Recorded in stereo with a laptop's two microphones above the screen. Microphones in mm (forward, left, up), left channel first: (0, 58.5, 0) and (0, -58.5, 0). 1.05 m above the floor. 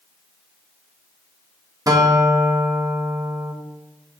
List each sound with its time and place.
1.9 s a guitar: 30° right (ahead or behind), 1.4 m